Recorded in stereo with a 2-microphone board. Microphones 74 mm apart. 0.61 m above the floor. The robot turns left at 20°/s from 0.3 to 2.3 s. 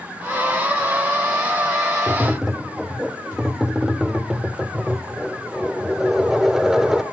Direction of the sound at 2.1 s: Centre (ahead or behind).